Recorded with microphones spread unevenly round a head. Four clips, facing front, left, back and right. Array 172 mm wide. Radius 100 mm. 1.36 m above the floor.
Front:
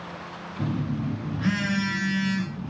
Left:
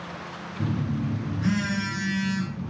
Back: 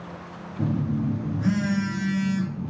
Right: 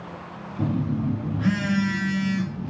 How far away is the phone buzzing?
About 0.6 m.